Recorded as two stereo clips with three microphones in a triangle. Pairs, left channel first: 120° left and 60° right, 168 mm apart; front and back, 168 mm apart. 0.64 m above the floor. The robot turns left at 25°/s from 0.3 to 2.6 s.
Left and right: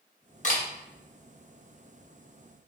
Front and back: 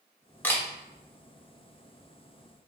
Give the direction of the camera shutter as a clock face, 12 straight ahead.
9 o'clock.